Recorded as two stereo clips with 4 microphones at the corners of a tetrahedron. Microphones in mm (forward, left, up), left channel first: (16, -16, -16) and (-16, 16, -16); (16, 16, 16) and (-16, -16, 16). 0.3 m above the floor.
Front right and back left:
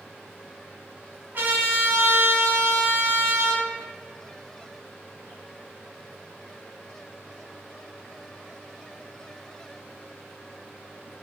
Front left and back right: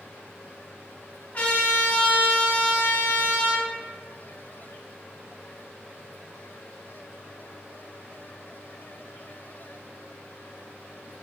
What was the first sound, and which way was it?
A trumpet, 95° left.